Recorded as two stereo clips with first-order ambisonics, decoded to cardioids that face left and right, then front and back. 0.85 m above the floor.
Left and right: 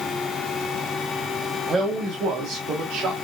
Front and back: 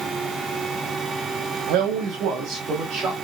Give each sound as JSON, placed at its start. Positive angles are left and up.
{"t": 1.7, "sound": "a man speaking", "azimuth_deg": -170, "distance_m": 0.9}